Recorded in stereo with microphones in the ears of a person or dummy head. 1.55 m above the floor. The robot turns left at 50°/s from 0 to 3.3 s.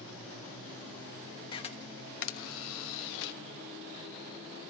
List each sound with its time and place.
1.5 s a camera shutter: 25° left (ahead or behind), 1.3 m; by 3.4 s 60° left (ahead or behind), 1.3 m